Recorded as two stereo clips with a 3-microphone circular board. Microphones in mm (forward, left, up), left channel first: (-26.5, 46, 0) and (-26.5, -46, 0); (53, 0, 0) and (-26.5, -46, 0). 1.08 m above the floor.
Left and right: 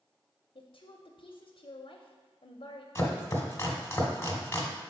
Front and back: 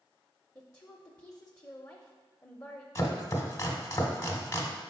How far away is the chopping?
About 1.1 m.